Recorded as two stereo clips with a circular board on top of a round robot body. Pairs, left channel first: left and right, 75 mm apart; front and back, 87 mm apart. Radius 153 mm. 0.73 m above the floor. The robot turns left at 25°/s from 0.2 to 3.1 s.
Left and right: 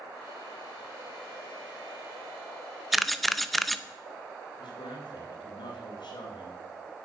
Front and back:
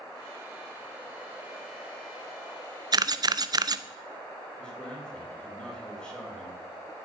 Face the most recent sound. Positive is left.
turn(degrees=80)